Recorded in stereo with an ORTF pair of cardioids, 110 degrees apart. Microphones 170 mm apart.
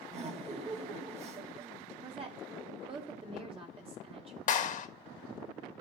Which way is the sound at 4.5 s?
50° left.